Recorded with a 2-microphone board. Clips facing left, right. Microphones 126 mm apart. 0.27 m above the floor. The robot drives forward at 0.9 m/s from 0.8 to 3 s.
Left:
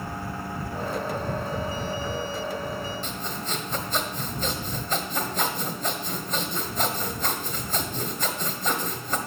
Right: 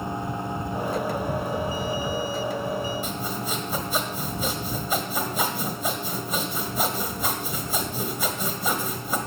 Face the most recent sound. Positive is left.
turn(degrees=-10)  # may be behind; listen again after turning